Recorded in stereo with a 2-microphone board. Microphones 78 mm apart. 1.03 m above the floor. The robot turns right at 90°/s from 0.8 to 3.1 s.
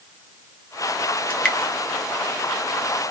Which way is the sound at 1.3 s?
15° left (ahead or behind).